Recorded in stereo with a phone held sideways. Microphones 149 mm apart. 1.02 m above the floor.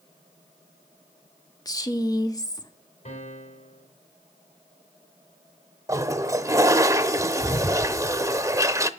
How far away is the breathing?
No breathing in this recording.